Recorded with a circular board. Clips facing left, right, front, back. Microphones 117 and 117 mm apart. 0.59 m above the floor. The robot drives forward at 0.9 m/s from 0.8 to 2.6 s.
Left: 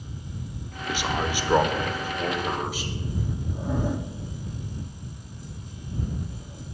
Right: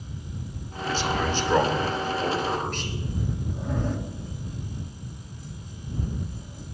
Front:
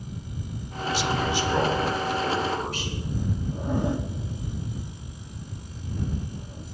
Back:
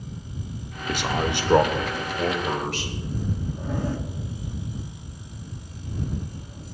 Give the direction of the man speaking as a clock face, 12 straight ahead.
7 o'clock.